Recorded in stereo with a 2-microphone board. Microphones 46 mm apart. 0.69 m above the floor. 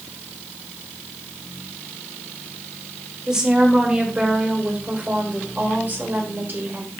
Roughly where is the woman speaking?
Centre.